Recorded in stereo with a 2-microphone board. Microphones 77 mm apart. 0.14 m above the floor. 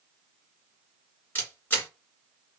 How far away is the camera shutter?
About 2 m.